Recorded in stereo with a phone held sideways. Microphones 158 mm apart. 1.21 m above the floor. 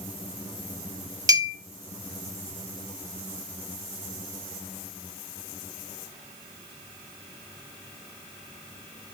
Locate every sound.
1.3 s a clink: 25° right (ahead or behind), 0.9 m